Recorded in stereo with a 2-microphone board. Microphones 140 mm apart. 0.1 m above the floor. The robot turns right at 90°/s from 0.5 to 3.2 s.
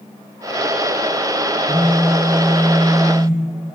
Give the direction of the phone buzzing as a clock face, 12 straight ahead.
12 o'clock.